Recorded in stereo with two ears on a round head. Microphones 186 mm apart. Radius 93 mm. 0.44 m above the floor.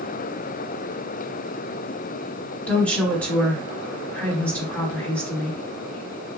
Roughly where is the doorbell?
No doorbell in this recording.